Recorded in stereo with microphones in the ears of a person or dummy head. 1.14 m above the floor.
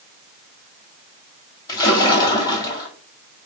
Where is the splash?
25° left (ahead or behind), 1.5 m.